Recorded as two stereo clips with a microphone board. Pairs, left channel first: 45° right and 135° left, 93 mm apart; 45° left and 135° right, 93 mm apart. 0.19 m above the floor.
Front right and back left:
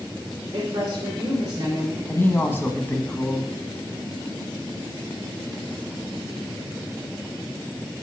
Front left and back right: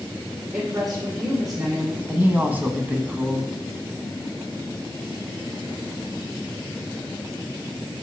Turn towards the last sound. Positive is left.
turn(degrees=-85)